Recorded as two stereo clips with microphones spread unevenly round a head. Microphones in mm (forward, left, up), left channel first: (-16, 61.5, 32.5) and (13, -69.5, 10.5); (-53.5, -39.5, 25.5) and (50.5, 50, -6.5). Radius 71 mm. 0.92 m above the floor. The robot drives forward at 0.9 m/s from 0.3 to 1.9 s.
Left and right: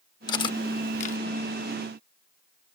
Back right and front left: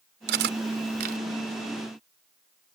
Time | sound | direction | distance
0.3 | cutlery clinking | 45° left | ?